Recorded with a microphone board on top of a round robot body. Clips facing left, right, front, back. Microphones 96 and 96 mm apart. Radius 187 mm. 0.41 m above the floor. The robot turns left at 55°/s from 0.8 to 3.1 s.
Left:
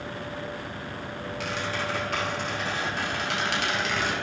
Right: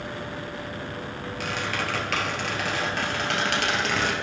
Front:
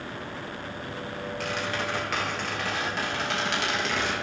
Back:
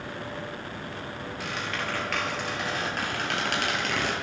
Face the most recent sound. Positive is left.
turn(degrees=-135)